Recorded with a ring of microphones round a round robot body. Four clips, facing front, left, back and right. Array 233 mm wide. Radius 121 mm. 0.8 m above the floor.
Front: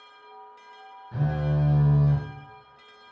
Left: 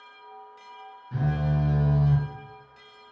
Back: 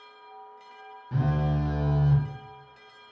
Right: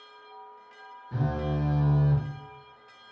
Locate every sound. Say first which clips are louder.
1.1 s a phone buzzing: left 2 dB, even; straight behind, 0.8 m